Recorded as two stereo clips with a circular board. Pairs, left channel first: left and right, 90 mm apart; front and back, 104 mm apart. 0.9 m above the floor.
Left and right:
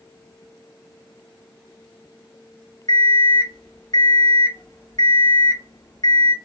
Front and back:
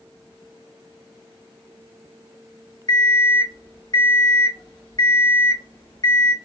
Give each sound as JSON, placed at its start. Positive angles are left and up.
{"t": 2.9, "sound": "an alarm clock", "azimuth_deg": 45, "distance_m": 0.9}